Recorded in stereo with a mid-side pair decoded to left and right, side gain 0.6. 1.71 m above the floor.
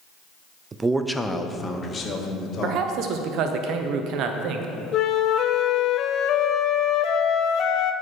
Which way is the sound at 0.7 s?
30° right.